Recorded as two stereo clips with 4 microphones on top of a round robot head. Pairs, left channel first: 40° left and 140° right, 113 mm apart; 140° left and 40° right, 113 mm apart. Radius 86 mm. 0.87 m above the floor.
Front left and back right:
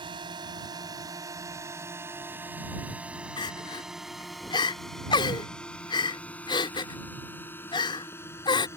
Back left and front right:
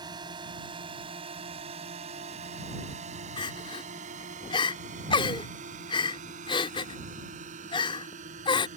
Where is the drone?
95° right; by 8.8 s 30° right.